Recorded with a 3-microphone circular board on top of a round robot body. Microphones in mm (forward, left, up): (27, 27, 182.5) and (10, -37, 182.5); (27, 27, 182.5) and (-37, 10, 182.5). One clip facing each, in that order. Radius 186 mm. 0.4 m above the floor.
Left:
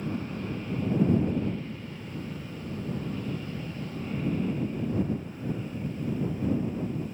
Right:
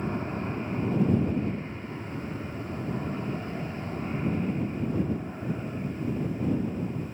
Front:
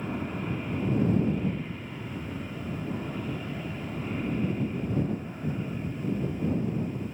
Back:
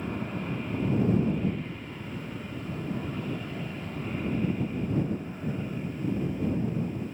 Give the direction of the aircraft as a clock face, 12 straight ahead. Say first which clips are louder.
Right 2 dB, front 1 dB; 2 o'clock.